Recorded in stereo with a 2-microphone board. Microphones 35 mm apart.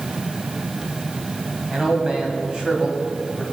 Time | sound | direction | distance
1.7 | a man speaking | 25° right (ahead or behind) | 2 m